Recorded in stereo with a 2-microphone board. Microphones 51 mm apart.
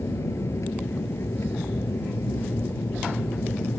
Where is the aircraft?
80° left.